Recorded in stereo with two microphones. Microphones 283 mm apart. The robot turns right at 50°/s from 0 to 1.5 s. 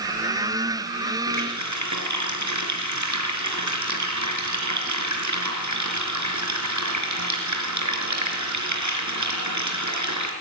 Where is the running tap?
85° right, 4 m; by 10.3 s 80° right, 4 m.